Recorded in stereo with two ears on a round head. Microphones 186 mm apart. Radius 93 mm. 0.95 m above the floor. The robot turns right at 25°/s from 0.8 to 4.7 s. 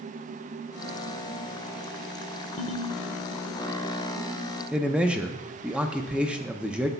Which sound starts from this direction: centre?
A man speaking, at 4.7 s.